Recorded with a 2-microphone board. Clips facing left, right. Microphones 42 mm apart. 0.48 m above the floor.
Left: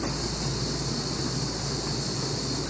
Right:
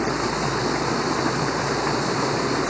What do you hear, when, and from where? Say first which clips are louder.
0.0 s running water: right 9 dB; 55° right (ahead or behind)